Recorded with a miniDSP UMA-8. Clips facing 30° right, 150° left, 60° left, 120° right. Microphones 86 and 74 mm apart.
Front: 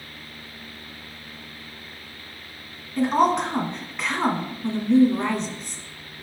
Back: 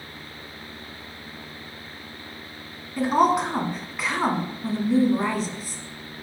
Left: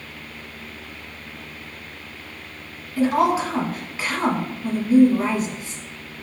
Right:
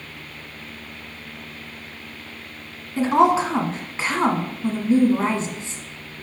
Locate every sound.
3.0 s a woman speaking: 130° right, 1.2 m